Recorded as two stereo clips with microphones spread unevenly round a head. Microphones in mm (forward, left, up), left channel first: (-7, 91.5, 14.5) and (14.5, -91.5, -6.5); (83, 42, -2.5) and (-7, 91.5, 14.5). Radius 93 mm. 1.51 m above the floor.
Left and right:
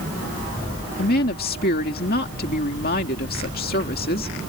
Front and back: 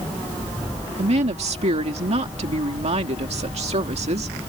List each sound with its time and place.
1.0 s a woman speaking: 140° left